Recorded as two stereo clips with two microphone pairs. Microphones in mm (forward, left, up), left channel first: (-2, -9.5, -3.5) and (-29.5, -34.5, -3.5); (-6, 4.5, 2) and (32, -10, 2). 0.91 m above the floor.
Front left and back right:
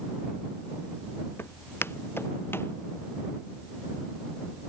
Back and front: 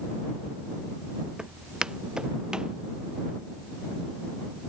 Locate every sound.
1.4 s footsteps: 50° left